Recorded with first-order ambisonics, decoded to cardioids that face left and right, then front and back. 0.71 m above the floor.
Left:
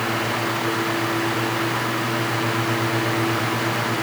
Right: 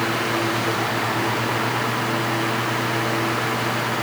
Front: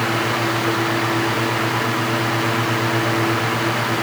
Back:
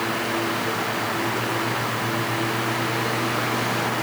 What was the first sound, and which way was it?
Only background noise.